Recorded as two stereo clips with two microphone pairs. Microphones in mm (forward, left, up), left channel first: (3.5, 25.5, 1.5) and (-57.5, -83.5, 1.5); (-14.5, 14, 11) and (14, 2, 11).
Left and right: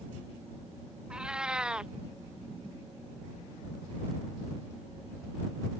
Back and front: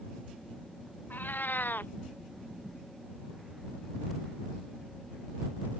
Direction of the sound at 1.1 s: 160° left.